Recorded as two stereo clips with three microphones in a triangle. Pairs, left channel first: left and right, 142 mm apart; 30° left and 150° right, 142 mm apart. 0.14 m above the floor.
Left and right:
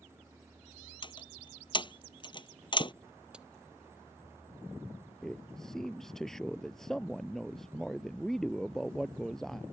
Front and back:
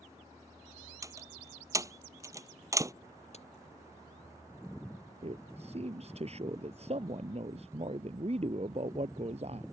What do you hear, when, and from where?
1.0 s a door slam: 145° left
3.3 s a crack: 10° right
5.2 s a man speaking: 175° left